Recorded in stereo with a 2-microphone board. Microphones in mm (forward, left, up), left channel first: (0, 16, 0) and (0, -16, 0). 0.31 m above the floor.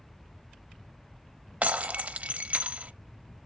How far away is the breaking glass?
About 0.6 m.